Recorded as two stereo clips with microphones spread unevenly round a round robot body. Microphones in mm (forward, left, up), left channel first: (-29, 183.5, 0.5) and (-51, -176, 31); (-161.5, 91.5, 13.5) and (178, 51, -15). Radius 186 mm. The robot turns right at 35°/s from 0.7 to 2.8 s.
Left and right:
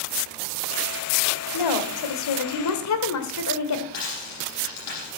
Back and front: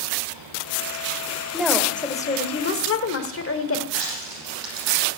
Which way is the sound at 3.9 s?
35° left.